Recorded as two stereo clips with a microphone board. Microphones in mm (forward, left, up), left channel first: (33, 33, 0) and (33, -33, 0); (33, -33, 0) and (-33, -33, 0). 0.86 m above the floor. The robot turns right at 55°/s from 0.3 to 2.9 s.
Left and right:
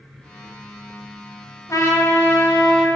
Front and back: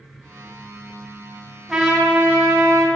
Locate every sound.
1.7 s a trumpet: 95° left, 1.2 m; by 2.9 s 155° left, 1.2 m